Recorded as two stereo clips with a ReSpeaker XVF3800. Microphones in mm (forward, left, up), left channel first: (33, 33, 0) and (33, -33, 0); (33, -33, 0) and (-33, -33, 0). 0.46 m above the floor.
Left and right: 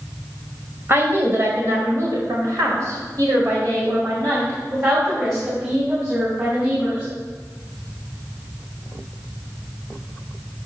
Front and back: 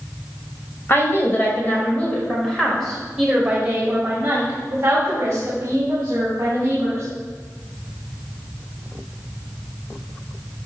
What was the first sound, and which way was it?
A woman speaking, 45° right.